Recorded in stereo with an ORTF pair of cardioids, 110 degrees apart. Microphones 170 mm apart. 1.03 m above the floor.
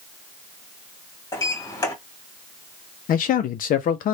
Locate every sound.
1.3 s a sliding door: 20° left, 2 m
3.1 s a man speaking: 60° left, 0.8 m